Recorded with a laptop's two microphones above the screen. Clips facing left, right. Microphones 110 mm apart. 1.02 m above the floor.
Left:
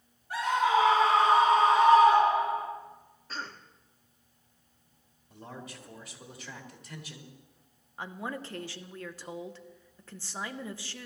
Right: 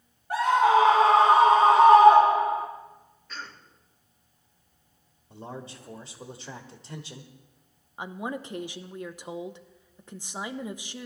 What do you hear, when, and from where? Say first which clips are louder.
0.3 s a scream: right 6 dB; 70° right (ahead or behind), 2 m
3.3 s a cough: left 2 dB; 35° left (ahead or behind), 1.9 m
5.3 s a man speaking: right 5 dB; 30° right (ahead or behind), 1.6 m
8.0 s a woman speaking: right 4 dB; 15° right (ahead or behind), 0.7 m